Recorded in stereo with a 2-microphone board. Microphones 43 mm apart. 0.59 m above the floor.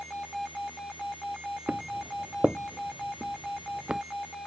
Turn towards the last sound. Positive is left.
turn(degrees=-30)  # may be behind; listen again after turning